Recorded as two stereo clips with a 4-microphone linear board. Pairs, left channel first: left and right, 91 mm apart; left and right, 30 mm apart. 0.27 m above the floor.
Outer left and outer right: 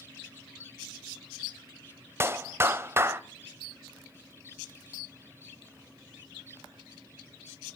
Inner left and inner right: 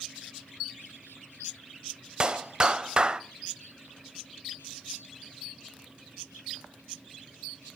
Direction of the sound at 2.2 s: 30° right (ahead or behind).